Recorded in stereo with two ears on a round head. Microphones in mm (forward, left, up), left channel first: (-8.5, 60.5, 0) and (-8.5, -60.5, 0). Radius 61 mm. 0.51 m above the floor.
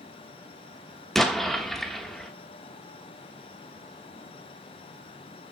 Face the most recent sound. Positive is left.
turn(degrees=5)  # may be behind; listen again after turning